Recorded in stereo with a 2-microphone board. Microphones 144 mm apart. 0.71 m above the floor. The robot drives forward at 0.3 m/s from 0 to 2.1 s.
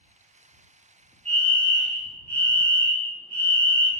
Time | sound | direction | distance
1.2 | a fire alarm | 5° left (ahead or behind) | 1.7 m